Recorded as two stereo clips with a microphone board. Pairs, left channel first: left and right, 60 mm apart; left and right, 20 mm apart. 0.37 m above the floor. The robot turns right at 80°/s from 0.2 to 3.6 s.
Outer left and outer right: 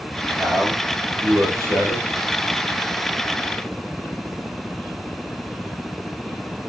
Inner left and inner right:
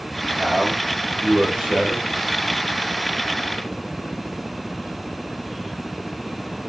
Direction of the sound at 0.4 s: Straight behind.